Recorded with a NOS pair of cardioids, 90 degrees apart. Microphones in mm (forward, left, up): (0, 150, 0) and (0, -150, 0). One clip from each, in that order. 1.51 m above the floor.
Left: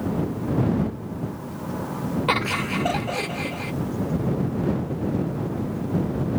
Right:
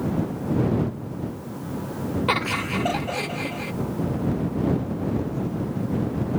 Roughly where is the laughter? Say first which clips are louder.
Left 1 dB; ahead.